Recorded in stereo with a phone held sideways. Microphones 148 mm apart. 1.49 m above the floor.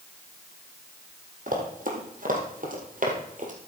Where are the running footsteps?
65° right (ahead or behind), 4 m; by 3.5 s 60° right (ahead or behind), 3 m.